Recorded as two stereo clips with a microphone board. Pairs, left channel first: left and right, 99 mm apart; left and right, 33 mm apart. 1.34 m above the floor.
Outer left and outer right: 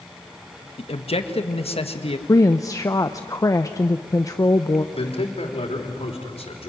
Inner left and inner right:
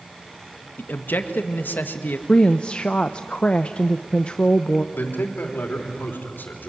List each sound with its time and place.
0.8 s a man speaking: 80° left, 1.8 m
2.3 s a woman speaking: 35° left (ahead or behind), 0.7 m
4.9 s a man speaking: 80° left, 3.5 m